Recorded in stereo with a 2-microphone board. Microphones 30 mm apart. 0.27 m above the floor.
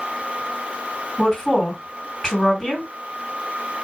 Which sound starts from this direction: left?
A woman speaking, at 1.2 s.